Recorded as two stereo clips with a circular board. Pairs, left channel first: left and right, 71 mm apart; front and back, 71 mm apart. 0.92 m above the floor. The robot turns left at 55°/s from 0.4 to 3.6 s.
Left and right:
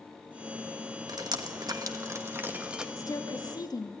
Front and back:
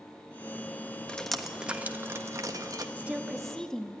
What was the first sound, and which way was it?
Dripping, 75° right.